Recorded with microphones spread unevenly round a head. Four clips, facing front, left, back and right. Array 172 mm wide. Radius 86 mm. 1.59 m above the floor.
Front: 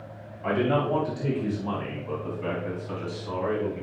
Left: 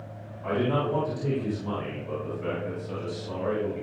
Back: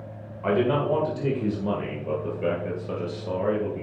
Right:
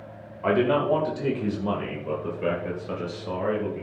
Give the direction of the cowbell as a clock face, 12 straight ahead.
I don't hear a cowbell.